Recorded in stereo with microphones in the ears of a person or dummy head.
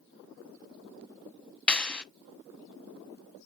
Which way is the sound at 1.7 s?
5° left (ahead or behind).